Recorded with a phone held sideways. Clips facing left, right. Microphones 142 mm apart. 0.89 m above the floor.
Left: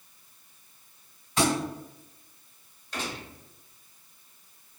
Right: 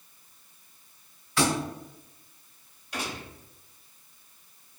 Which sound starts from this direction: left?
A thud, at 1.4 s.